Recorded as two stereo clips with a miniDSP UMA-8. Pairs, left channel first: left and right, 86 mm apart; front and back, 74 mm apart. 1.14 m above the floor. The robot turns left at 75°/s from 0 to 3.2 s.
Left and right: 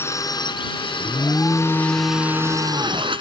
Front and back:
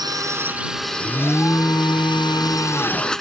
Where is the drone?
155° left; by 3.2 s 85° right.